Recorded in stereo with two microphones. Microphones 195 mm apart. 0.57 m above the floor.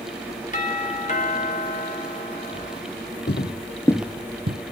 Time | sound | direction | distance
0.5 | a doorbell | 40° left (ahead or behind) | 3 m
3.3 | footsteps | 60° left (ahead or behind) | 1.0 m